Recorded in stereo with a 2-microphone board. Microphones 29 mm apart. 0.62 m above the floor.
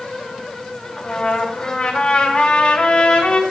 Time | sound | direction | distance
1.0 | a trumpet | 40° left (ahead or behind) | 2 m